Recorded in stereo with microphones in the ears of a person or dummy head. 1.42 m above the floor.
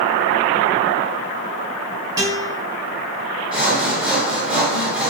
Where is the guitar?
15° right (ahead or behind), 1.6 m.